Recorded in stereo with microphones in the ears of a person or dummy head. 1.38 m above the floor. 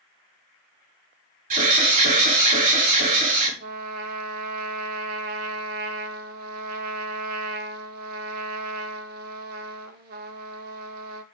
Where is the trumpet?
55° right (ahead or behind), 1.6 m.